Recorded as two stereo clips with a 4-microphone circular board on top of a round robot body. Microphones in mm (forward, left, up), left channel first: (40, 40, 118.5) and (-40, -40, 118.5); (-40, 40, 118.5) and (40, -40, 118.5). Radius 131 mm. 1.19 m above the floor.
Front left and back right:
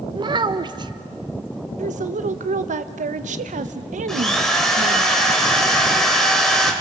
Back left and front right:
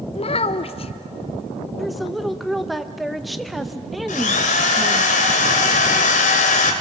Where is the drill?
130° left, 2 m.